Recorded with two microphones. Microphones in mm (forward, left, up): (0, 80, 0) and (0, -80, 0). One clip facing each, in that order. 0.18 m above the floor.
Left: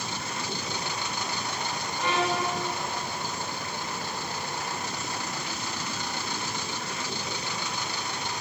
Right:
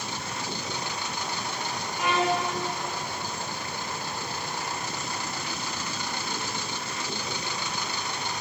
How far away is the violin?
About 6 m.